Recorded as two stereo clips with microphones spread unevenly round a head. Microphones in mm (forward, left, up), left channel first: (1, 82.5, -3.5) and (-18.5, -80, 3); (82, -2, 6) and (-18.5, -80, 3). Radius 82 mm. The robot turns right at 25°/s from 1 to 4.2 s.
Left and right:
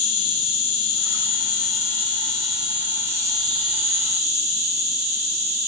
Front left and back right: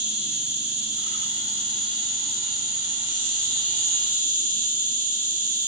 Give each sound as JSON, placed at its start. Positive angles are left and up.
{"t": 0.0, "sound": "an insect", "azimuth_deg": 135, "distance_m": 1.0}